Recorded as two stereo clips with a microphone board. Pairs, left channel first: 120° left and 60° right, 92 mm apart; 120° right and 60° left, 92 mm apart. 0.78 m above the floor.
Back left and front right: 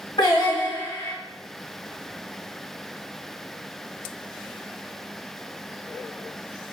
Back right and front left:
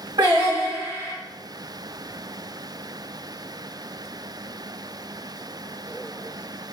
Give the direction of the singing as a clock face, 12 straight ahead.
9 o'clock.